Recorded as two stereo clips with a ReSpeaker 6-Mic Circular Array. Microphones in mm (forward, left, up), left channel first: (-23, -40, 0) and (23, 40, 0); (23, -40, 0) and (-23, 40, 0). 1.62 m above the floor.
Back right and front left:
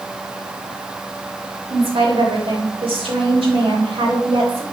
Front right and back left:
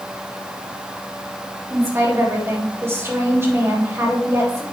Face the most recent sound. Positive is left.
turn(degrees=55)